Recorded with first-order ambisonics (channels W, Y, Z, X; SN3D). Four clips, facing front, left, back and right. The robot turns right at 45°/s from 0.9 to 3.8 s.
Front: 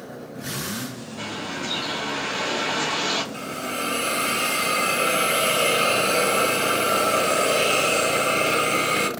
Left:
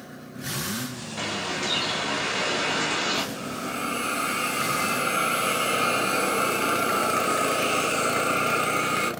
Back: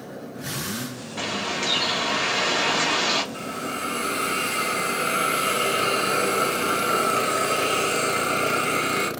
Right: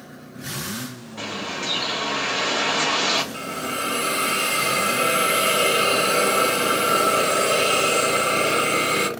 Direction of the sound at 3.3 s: 80° right.